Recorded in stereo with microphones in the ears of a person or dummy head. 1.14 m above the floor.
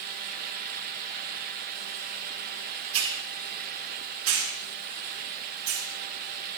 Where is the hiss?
70° right (ahead or behind), 2.5 m.